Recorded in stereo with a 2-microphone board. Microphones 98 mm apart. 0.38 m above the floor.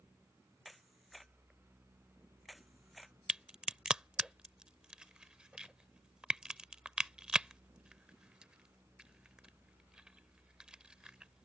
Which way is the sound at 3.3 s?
5° right (ahead or behind).